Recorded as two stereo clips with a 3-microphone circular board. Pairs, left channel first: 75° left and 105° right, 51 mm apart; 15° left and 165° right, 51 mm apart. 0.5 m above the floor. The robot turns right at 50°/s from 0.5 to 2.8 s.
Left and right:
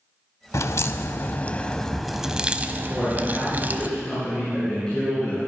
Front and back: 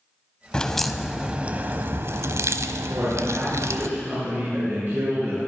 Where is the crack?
90° left, 0.8 m; by 3.9 s 160° right, 0.8 m.